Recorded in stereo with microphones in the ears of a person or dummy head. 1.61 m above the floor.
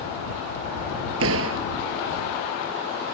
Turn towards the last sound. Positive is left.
turn(degrees=-80)